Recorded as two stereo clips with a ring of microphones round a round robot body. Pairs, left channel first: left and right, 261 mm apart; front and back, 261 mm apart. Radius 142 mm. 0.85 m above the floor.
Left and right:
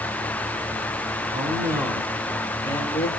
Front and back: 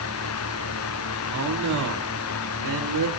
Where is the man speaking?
160° right, 2.5 m; by 3.1 s 160° left, 2.5 m.